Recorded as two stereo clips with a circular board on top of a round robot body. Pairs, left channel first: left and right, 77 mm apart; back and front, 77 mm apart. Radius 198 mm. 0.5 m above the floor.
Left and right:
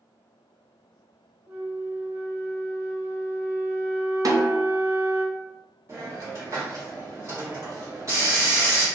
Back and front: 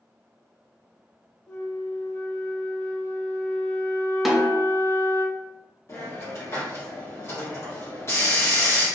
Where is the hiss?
130° right, 1.4 m.